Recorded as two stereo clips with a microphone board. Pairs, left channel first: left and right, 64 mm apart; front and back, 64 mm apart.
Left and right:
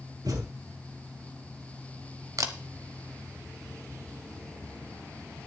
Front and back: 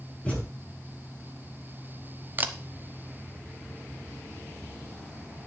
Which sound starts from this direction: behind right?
A camera shutter, at 2.4 s.